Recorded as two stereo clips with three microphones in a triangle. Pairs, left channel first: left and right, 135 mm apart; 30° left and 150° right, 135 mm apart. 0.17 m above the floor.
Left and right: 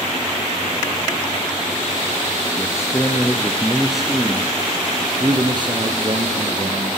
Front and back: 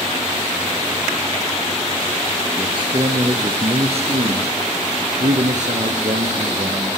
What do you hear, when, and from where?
2.6 s a man speaking: 155° left, 2.5 m; by 7.0 s 120° right, 3 m